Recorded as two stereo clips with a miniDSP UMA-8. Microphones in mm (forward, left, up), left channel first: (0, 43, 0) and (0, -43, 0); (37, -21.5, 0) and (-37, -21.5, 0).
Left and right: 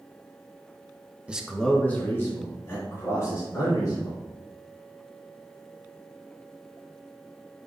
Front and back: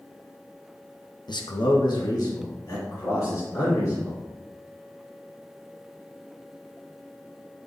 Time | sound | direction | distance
1.3 | a man speaking | 15° right | 0.9 m